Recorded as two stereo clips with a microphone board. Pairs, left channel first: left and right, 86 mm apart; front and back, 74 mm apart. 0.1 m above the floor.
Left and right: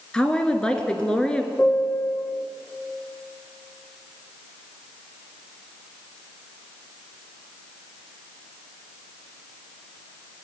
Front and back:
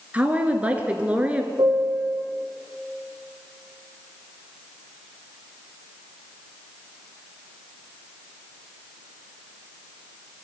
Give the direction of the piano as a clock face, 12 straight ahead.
7 o'clock.